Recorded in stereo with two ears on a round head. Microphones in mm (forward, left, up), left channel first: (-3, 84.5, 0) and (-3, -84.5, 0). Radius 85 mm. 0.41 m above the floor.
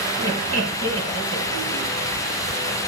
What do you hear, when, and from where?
0.2 s laughter: 65° right (ahead or behind), 2.5 m